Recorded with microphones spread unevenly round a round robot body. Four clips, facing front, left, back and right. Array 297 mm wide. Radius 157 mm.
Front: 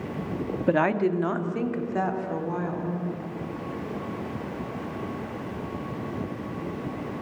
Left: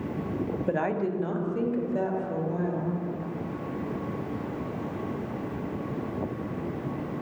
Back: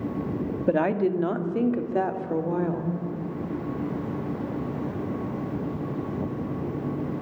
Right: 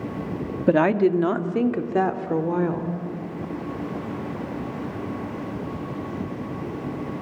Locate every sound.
0.7 s a woman speaking: 60° right, 1.6 m; by 2.9 s 95° right, 3 m